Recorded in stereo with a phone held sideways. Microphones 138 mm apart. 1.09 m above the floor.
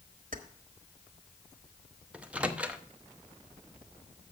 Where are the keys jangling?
70° right (ahead or behind), 1.1 m.